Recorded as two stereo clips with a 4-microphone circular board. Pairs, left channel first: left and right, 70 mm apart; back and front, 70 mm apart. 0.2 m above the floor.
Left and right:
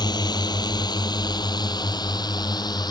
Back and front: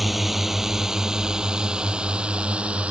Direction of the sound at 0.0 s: 90° left.